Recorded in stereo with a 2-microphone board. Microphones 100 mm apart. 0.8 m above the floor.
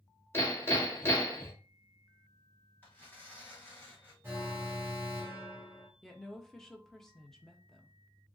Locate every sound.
0.3 s hammering: 25° left (ahead or behind), 1.5 m
2.8 s tearing paper: 15° left (ahead or behind), 2.5 m
4.2 s an alarm: 25° right (ahead or behind), 1.2 m
6.0 s a woman speaking: 5° left (ahead or behind), 0.5 m